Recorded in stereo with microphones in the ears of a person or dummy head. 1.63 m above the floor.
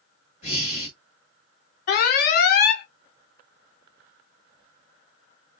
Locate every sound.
0.4 s breathing: 35° left (ahead or behind), 1.8 m
1.9 s an alarm: 50° left (ahead or behind), 0.6 m